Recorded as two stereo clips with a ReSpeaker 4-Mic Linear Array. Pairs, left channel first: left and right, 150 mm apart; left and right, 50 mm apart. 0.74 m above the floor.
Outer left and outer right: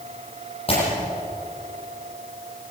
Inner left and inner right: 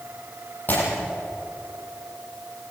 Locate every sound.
0.7 s breaking glass: 40° left (ahead or behind), 7.5 m